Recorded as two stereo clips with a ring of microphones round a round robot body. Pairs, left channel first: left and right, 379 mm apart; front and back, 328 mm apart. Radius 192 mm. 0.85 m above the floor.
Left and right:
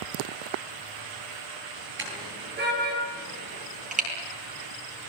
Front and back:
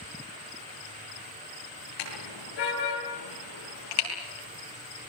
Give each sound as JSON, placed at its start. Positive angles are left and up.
{"t": 2.0, "sound": "a car horn", "azimuth_deg": -30, "distance_m": 10.0}